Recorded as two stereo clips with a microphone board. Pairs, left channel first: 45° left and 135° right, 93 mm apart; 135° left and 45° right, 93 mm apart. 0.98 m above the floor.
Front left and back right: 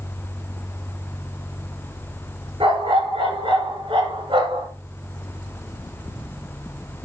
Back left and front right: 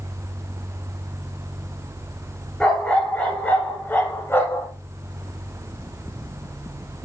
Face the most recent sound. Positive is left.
turn(degrees=-165)